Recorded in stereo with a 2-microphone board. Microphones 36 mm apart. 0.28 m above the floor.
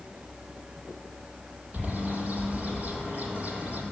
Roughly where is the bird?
Right.